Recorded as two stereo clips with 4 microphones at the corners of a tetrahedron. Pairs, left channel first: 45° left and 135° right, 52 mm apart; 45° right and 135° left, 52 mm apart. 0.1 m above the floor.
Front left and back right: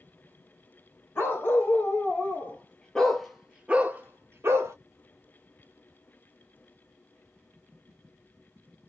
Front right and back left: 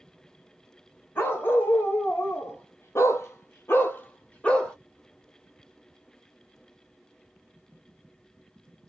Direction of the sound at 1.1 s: Straight ahead.